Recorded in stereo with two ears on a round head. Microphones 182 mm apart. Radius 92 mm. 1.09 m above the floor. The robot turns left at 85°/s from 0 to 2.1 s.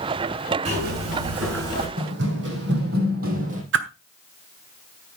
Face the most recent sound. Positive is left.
turn(degrees=-65)  # may be behind; listen again after turning